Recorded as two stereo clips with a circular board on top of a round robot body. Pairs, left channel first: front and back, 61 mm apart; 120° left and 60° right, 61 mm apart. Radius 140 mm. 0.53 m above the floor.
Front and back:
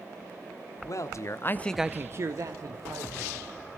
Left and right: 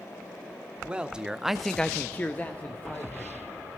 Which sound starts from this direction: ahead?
A man speaking, at 0.8 s.